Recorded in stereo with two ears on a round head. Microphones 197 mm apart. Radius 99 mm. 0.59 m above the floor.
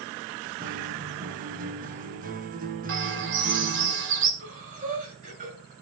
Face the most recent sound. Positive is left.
turn(degrees=-40)  # may be behind; listen again after turning